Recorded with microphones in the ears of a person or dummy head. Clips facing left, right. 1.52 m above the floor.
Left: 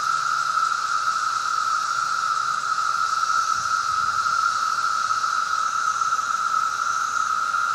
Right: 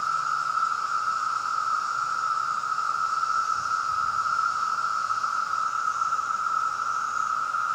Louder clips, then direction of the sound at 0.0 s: Left 3 dB; 25° left (ahead or behind).